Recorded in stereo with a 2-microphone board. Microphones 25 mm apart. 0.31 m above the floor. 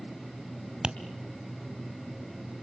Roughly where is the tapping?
Right.